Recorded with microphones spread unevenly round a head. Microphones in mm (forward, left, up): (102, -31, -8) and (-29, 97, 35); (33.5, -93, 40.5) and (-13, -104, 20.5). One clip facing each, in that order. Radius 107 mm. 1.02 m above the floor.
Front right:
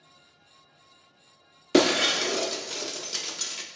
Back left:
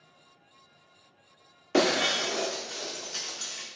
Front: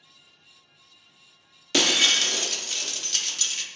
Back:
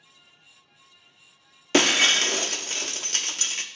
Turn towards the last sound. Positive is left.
turn(degrees=-100)